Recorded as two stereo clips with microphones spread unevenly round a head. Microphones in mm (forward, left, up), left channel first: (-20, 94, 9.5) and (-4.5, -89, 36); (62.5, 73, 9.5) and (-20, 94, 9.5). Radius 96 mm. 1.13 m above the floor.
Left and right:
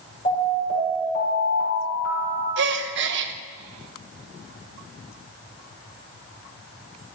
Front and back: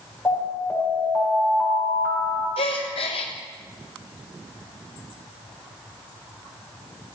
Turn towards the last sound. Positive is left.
turn(degrees=-50)